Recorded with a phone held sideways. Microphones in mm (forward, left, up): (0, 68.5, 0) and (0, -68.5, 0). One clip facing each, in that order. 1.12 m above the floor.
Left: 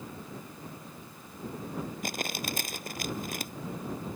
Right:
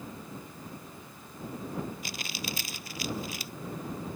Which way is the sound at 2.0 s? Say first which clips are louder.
Left 4 dB; 50° left (ahead or behind).